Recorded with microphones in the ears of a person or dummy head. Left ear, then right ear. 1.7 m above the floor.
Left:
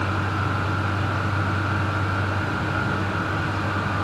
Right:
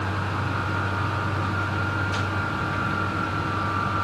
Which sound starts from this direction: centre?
A vehicle, at 0.0 s.